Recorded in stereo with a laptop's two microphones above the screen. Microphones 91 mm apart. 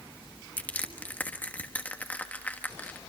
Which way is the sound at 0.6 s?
20° left (ahead or behind).